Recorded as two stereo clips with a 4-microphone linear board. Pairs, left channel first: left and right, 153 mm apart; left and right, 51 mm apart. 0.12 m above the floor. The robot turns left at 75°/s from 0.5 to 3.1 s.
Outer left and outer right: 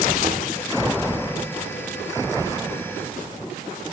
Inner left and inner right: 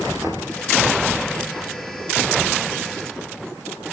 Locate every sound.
0.2 s knocking: 30° right (ahead or behind), 4 m; by 0.6 s 25° right (ahead or behind), 4 m